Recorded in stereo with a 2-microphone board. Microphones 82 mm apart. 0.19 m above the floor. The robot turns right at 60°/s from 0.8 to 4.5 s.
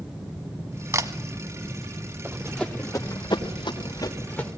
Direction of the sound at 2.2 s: 20° right (ahead or behind).